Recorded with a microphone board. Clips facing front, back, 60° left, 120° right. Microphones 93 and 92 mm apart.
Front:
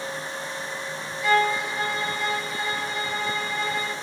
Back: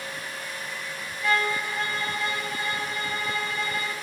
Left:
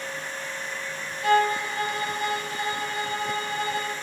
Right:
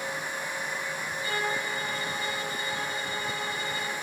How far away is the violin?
About 4 m.